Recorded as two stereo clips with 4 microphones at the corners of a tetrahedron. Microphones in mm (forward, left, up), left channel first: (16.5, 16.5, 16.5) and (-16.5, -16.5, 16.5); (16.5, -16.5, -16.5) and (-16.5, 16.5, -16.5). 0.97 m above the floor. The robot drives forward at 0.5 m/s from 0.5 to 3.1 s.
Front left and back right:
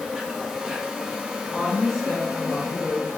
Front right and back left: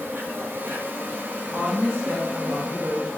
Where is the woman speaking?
115° left, 0.7 m; by 3.1 s 155° left, 1.2 m.